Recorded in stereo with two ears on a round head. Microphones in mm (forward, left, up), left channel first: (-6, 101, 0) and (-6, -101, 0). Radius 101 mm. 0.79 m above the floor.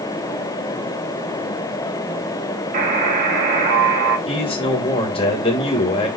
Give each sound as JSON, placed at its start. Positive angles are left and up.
{"t": 2.7, "sound": "a buzzer", "side_deg": -40, "distance_m": 5.0}
{"t": 4.3, "sound": "a man speaking", "side_deg": 25, "distance_m": 4.0}